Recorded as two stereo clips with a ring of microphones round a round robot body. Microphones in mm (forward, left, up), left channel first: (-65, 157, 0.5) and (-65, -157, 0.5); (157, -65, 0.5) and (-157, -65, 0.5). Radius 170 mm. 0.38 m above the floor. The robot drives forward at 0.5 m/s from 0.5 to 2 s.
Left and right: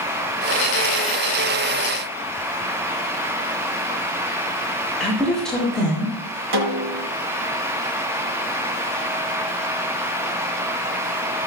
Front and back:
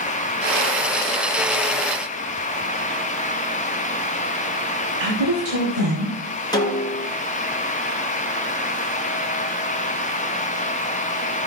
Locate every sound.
5.0 s a woman speaking: straight behind, 5 m
6.5 s a snare drum: 75° right, 2.5 m